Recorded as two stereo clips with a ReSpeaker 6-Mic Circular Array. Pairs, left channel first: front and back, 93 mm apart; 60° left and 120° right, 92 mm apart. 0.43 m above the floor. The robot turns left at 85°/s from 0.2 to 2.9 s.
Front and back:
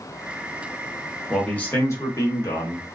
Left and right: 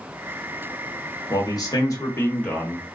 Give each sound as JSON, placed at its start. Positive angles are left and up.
{"t": 1.3, "sound": "a man speaking", "azimuth_deg": 90, "distance_m": 0.9}